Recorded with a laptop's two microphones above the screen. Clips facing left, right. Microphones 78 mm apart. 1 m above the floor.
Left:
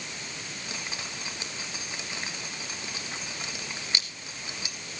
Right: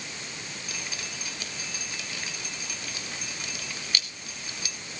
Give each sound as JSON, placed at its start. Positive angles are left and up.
{"t": 0.7, "sound": "dripping", "side_deg": 25, "distance_m": 1.4}